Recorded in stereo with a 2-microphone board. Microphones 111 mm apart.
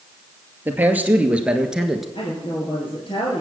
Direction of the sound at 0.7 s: 20° right (ahead or behind).